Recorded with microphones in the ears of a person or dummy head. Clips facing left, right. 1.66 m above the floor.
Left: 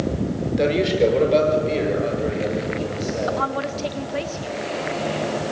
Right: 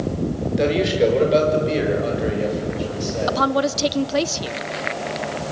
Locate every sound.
0.6 s a man speaking: centre (ahead or behind), 4.5 m; by 3.4 s 10° right (ahead or behind), 8.5 m
3.3 s a woman speaking: 60° right (ahead or behind), 1.0 m